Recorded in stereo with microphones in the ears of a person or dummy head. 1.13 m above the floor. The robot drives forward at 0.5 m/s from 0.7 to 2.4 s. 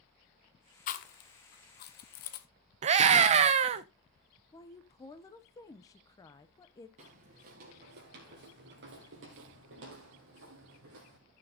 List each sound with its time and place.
0.9 s chewing: 45° left (ahead or behind), 0.9 m
2.8 s a scream: 40° right (ahead or behind), 0.6 m
4.5 s a woman speaking: 20° left (ahead or behind), 0.6 m
7.0 s footsteps: 40° right (ahead or behind), 1.9 m; by 11.2 s 65° right (ahead or behind), 3 m